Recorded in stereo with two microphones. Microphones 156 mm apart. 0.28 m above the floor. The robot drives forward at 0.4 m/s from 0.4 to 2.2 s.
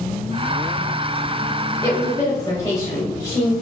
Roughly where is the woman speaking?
Left.